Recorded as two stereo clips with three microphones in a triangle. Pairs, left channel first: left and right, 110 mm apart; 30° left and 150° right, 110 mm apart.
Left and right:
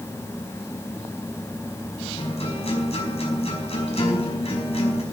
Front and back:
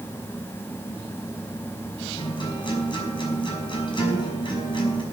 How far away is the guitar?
About 5.5 m.